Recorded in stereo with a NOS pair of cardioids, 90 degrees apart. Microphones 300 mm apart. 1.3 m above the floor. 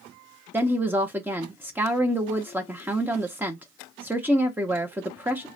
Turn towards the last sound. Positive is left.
turn(degrees=-5)